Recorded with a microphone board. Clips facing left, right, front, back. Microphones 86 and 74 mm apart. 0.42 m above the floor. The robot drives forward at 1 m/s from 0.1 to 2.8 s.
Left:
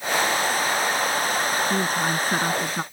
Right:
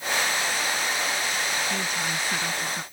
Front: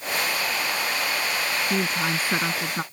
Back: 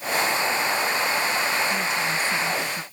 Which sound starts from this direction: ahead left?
A woman speaking, at 1.7 s.